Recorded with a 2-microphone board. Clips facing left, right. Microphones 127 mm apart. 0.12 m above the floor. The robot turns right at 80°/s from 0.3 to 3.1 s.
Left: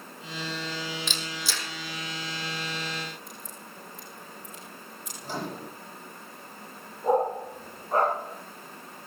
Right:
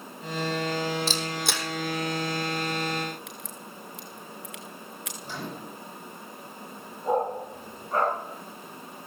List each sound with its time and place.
1.1 s a camera shutter: 35° right (ahead or behind), 2.5 m; by 1.7 s 75° right (ahead or behind), 2.5 m
3.3 s a crack: 80° right, 2.5 m
5.2 s a microwave: 40° left (ahead or behind), 5.5 m
7.0 s a dog barking: 30° left (ahead or behind), 9 m